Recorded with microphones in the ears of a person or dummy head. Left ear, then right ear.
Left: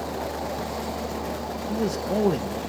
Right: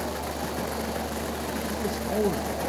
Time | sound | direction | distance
1.7 | a man speaking | 40° left (ahead or behind) | 0.7 m